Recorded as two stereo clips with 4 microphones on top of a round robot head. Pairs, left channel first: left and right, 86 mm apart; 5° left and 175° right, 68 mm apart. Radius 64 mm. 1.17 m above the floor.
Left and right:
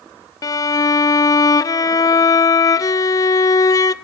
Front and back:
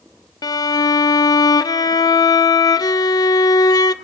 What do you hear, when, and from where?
0.4 s a violin: 40° left, 0.5 m